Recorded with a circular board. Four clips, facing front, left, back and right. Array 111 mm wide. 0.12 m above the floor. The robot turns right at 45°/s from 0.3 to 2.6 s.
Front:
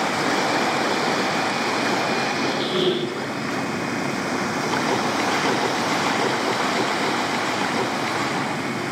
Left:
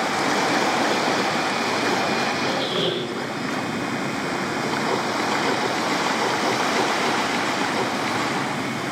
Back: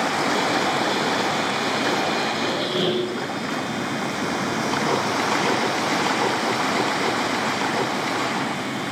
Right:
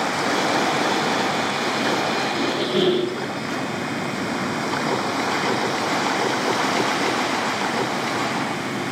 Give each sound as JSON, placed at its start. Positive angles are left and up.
{"t": 2.3, "sound": "a squeak", "azimuth_deg": -80, "distance_m": 6.5}